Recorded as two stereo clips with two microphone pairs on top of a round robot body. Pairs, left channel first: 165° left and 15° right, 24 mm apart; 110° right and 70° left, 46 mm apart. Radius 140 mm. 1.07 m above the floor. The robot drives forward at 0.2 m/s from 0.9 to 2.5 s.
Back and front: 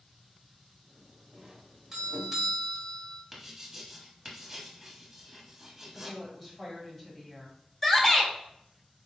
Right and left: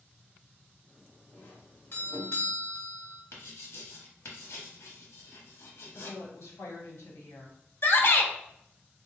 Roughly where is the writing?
Right.